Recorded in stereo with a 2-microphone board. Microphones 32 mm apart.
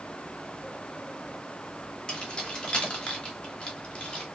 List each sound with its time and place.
2.1 s keys jangling: 25° left (ahead or behind), 0.9 m